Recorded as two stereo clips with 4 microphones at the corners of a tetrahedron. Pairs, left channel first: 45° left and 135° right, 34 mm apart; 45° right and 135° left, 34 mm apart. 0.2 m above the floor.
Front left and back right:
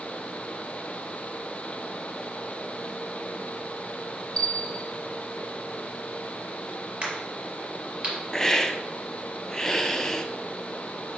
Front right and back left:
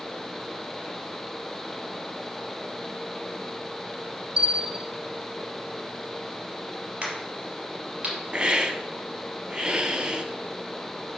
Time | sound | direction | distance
4.4 | a bell | 90° left | 0.7 m
7.0 | a crack | 170° left | 4 m
8.3 | a hiss | 100° left | 0.8 m